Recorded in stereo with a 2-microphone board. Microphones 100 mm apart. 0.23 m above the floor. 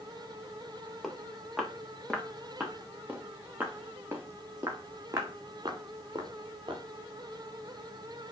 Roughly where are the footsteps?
Centre.